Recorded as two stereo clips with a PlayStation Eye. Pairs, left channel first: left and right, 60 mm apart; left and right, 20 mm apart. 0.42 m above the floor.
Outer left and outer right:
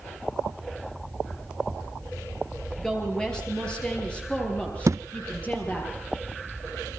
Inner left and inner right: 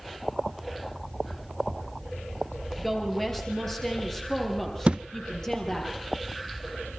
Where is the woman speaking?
10° left (ahead or behind), 7 m; by 5.9 s 25° left (ahead or behind), 8.5 m.